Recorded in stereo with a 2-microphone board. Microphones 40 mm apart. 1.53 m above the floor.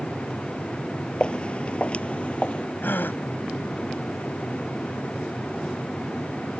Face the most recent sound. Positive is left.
turn(degrees=55)  # may be behind; listen again after turning